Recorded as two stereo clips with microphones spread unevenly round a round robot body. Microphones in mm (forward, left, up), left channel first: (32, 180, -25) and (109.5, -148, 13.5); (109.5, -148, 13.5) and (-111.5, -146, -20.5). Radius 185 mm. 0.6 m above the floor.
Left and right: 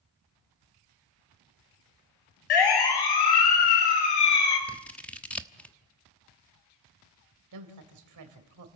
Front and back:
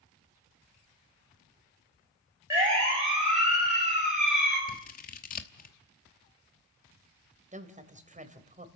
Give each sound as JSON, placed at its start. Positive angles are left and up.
{"t": 2.5, "sound": "a siren", "azimuth_deg": 100, "distance_m": 4.5}
{"t": 4.7, "sound": "scissors", "azimuth_deg": 30, "distance_m": 1.1}
{"t": 7.5, "sound": "a woman speaking", "azimuth_deg": -125, "distance_m": 3.0}